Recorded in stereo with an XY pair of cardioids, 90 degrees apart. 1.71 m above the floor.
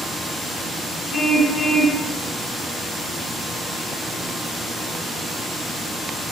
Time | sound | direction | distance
1.1 | a car horn | 65° left | 9.5 m